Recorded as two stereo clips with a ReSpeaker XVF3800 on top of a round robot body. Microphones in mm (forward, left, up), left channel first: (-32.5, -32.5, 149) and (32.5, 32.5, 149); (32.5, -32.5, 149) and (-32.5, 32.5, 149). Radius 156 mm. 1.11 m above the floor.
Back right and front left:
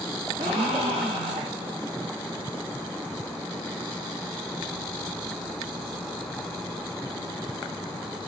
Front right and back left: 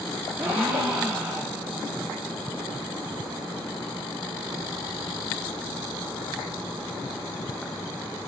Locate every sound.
0.4 s a gasp: 60° left, 0.6 m